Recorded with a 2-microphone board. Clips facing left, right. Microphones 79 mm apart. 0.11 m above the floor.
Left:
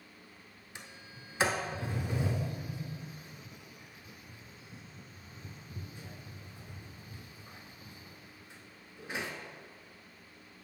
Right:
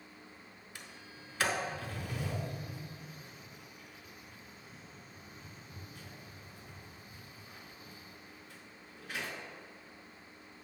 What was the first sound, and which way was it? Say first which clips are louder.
A sliding door: left 2 dB; 20° left (ahead or behind).